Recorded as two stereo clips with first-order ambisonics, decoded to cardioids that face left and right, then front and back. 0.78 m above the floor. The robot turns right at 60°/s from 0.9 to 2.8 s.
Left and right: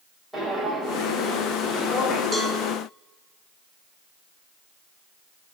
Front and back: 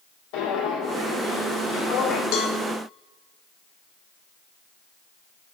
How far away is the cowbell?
About 1.0 m.